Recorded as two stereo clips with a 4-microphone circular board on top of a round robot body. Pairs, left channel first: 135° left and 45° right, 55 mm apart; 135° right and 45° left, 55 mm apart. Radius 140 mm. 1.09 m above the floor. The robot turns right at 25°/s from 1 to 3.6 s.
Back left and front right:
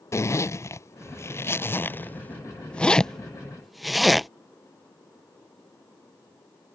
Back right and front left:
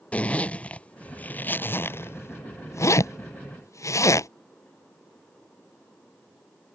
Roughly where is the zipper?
Behind.